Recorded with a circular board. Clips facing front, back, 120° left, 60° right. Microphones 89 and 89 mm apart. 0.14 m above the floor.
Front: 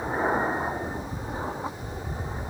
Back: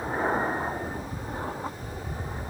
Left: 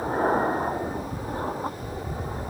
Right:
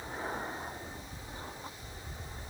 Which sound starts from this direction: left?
An aircraft, at 0.0 s.